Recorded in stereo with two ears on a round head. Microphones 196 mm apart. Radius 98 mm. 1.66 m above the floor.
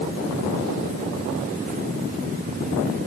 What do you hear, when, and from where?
Only background noise.